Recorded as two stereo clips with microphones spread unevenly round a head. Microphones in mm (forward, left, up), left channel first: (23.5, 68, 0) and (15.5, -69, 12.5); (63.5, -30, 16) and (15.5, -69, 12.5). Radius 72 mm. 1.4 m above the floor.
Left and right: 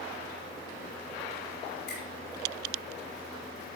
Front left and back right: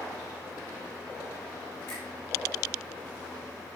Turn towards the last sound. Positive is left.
turn(degrees=110)